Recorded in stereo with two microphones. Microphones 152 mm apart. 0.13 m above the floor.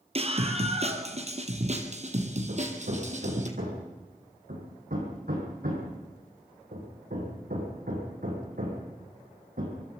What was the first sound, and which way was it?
A scream, 40° right (ahead or behind).